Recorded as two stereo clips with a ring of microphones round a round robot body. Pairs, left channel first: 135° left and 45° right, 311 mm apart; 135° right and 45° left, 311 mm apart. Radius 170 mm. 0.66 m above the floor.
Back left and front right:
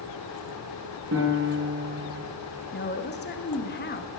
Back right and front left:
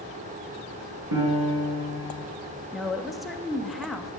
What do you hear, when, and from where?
1.1 s a piano: 10° left, 4.5 m
2.7 s a woman speaking: 135° left, 1.1 m